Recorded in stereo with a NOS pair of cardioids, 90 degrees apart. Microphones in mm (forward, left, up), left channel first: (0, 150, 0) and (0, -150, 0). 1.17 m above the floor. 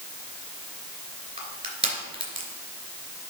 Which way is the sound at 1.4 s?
20° right.